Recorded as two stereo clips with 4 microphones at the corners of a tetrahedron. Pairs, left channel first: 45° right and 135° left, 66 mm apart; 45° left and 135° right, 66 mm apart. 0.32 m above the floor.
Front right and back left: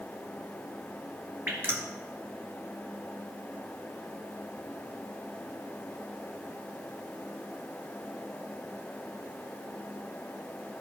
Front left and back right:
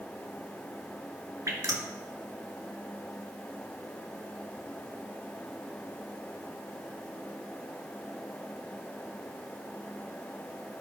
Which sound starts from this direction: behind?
Dripping, at 1.5 s.